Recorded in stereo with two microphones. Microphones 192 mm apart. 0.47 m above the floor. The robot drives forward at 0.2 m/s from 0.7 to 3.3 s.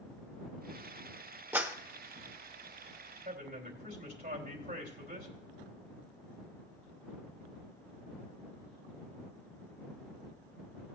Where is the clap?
10° right (ahead or behind), 1.0 m.